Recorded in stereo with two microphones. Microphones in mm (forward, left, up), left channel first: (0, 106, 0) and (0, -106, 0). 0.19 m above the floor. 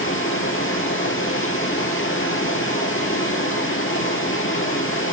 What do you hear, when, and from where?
0.0 s running water: 75° left (ahead or behind), 2.5 m